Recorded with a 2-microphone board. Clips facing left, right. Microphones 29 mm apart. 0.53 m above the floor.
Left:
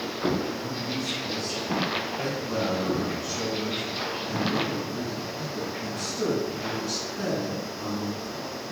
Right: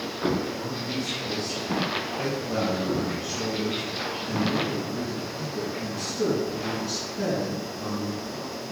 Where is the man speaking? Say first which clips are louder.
Even; 60° right (ahead or behind), 3 m; by 8.6 s 15° right (ahead or behind), 6.5 m.